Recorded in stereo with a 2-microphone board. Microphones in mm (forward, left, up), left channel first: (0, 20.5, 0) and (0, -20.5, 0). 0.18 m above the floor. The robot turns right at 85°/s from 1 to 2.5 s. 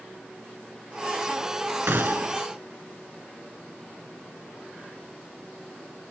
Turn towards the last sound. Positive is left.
turn(degrees=-40)